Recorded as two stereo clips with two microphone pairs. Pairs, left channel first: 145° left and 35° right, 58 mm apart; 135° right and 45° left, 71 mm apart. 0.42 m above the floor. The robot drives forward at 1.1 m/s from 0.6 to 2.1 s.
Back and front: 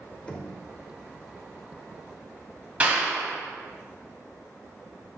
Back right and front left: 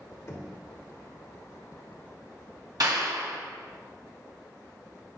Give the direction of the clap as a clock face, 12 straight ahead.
11 o'clock.